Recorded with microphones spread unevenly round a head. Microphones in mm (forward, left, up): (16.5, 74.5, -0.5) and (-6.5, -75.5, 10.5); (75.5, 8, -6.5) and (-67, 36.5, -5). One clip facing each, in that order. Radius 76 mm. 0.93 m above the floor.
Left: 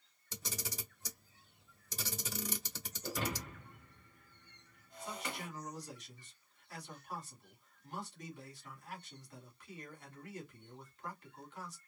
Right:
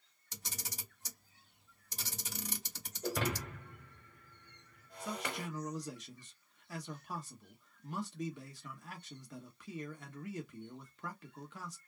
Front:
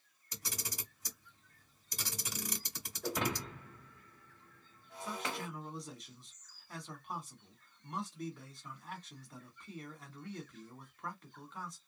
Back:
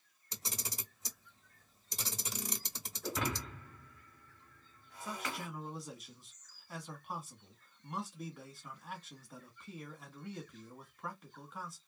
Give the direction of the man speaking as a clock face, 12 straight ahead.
3 o'clock.